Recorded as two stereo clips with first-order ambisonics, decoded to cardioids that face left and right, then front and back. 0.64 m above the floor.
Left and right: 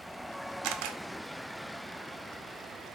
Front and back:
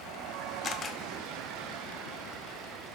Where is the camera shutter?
70° right, 0.6 m.